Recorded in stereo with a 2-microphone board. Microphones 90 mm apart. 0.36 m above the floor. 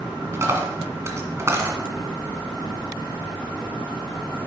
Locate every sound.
0.3 s a dropped coin: 30° right (ahead or behind), 1.7 m